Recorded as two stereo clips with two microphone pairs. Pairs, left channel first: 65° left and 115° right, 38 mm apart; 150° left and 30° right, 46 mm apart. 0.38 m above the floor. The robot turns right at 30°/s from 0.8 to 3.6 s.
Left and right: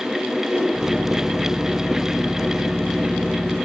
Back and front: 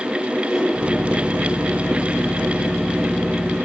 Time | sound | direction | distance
0.5 | a whoosh | 120° right | 4.5 m